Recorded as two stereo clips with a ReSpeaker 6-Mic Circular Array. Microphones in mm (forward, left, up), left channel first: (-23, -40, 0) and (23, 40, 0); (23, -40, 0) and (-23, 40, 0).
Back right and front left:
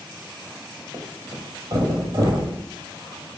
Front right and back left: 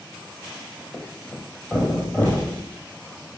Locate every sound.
0.9 s a thud: 10° left, 1.9 m